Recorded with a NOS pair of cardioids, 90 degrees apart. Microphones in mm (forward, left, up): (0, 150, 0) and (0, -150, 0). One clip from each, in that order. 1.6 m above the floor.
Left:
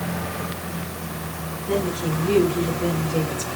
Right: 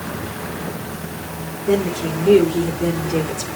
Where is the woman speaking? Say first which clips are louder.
Right 5 dB; 70° right, 4.5 m.